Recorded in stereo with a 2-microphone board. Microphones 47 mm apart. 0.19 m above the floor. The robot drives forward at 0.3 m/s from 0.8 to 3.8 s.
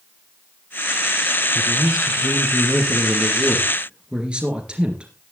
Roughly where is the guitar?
I don't hear a guitar.